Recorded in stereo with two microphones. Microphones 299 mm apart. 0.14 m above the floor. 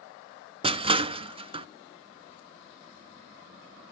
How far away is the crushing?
About 0.5 m.